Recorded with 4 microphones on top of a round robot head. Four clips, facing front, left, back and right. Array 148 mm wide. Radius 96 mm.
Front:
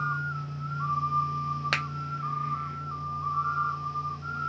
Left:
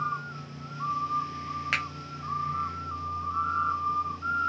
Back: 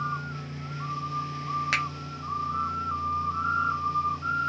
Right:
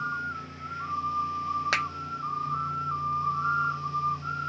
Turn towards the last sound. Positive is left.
turn(degrees=-50)